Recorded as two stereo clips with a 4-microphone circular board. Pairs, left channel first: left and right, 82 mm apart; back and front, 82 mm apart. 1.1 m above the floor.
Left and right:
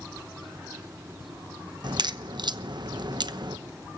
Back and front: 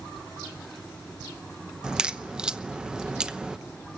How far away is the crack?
About 0.8 m.